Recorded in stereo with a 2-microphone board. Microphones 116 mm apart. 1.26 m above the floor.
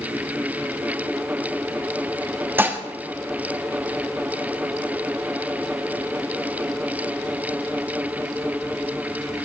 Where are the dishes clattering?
20° right (ahead or behind), 1.3 m.